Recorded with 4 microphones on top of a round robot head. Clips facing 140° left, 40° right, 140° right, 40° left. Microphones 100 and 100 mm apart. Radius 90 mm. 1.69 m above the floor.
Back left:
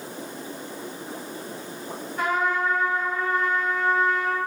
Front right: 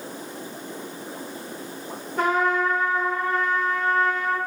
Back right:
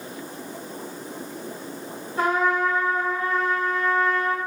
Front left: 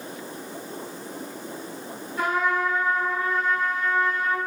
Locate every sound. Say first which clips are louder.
2.2 s a trumpet: front right 3 dB, back right 2 dB; 75° right, 1.0 m